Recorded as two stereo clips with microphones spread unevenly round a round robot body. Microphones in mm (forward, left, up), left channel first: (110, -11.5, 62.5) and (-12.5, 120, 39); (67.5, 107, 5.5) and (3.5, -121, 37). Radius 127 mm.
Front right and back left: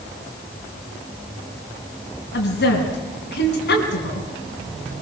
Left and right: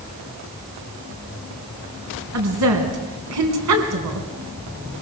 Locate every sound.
2.3 s a woman speaking: 90° right, 3.5 m